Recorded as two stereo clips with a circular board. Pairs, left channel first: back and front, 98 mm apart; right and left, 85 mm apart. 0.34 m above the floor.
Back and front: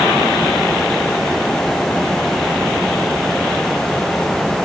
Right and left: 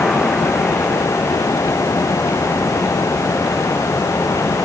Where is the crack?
I don't hear a crack.